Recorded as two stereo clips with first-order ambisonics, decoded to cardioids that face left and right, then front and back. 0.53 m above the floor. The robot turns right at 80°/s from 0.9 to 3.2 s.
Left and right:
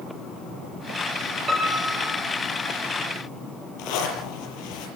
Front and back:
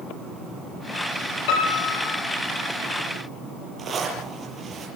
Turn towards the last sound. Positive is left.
turn(degrees=110)